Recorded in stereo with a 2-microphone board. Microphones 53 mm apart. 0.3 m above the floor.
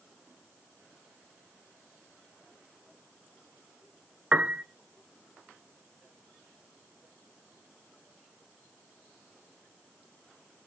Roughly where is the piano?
Right.